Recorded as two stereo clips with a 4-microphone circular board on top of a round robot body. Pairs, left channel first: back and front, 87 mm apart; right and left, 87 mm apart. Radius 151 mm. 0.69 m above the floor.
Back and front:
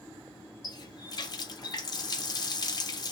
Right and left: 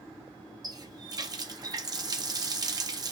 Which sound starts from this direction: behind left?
A running tap, at 0.6 s.